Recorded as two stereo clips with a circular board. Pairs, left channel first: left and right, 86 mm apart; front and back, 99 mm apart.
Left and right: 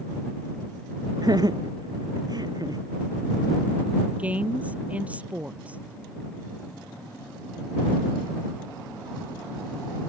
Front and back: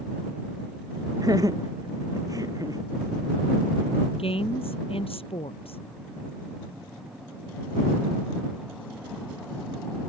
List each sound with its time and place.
1.2 s laughter: 130° right
4.2 s a woman speaking: 15° right